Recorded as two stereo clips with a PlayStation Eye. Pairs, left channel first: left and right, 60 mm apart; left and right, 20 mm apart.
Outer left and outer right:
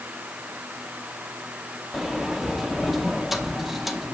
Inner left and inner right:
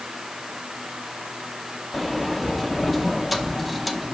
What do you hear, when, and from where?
1.9 s a sliding door: 5° right (ahead or behind), 0.7 m